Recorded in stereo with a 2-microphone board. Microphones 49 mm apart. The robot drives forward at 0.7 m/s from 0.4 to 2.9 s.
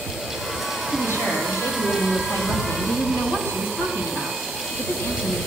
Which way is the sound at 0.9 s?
65° left (ahead or behind).